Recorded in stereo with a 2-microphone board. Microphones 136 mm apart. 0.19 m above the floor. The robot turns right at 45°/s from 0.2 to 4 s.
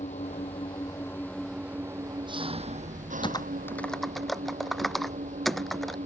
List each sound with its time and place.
0.0 s an engine running: 120° left; by 6.1 s 65° right
3.2 s typing on a keyboard: 35° left (ahead or behind); by 6.0 s centre (ahead or behind)